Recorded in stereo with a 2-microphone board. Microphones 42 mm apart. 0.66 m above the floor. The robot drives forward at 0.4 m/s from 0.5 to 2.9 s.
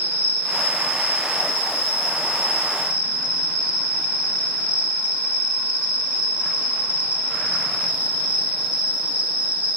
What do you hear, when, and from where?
0.0 s an insect: 75° right (ahead or behind), 1.0 m; by 9.8 s 40° right (ahead or behind), 1.5 m